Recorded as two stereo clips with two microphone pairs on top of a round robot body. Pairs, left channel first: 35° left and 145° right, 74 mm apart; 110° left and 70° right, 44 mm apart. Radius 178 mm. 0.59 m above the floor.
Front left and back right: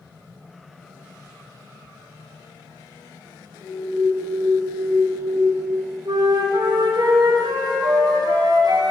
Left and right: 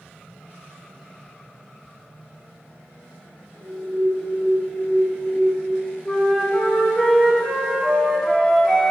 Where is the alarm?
120° left, 1.2 m.